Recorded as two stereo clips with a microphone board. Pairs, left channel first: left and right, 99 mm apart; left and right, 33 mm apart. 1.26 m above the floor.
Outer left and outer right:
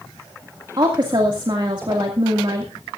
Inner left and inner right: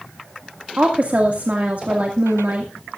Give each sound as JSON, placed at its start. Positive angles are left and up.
{"t": 0.8, "sound": "a woman speaking", "side_deg": -50, "distance_m": 2.0}